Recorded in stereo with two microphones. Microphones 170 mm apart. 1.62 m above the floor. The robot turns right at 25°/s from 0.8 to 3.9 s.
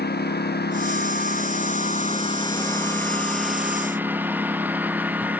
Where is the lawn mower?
65° left (ahead or behind); by 5.4 s 10° right (ahead or behind).